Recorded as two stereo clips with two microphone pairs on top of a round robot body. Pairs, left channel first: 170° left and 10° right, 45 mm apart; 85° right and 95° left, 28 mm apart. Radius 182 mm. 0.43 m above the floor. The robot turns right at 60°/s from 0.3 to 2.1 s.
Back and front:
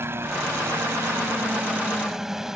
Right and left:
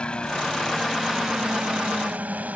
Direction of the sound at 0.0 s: 40° right.